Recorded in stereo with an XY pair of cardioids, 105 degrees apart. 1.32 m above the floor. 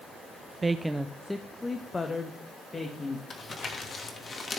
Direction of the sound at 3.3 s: 30° left.